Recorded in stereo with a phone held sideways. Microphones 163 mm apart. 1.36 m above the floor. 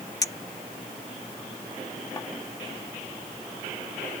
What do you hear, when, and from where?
0.2 s a clink: 25° left (ahead or behind)